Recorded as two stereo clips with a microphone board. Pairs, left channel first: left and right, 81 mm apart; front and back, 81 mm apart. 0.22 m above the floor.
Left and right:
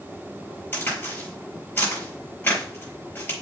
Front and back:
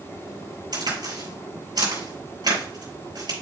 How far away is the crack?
About 5.5 m.